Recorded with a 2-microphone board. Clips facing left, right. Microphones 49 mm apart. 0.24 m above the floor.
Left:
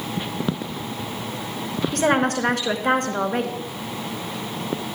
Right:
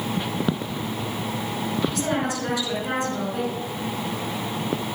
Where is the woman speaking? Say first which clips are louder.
Left 5 dB; 50° left (ahead or behind), 2.5 m.